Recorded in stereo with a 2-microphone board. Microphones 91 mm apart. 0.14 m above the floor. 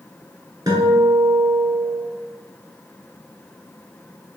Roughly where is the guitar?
Right.